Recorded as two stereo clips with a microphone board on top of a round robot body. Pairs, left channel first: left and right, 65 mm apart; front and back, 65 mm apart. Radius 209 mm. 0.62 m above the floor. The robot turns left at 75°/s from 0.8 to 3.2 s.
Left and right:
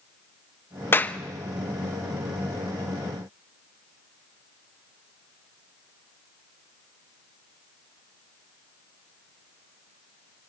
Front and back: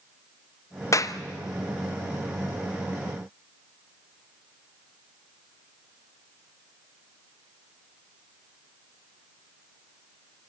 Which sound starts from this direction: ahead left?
A clap, at 0.9 s.